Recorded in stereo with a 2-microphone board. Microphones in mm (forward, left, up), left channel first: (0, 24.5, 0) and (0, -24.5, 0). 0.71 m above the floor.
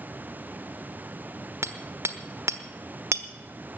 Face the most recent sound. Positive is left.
turn(degrees=-70)  # may be behind; listen again after turning